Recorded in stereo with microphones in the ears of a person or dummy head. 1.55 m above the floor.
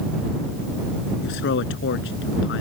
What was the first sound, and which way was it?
A man speaking, 75° left (ahead or behind).